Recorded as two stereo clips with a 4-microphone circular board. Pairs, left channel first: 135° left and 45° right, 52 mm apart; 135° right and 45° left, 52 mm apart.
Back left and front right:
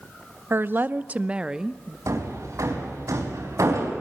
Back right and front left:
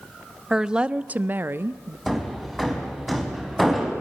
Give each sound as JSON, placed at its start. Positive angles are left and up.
{"t": 0.5, "sound": "a woman speaking", "azimuth_deg": -30, "distance_m": 0.8}
{"t": 2.1, "sound": "hammering", "azimuth_deg": -40, "distance_m": 4.5}